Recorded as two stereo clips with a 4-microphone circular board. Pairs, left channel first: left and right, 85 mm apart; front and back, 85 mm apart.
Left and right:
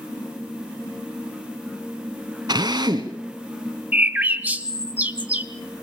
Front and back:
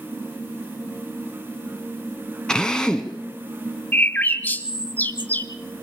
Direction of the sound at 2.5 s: 80° right.